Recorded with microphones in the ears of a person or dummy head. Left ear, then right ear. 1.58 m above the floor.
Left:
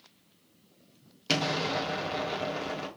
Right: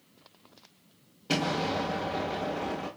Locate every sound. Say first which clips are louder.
1.3 s an explosion: left 1 dB; 60° left (ahead or behind), 1.2 m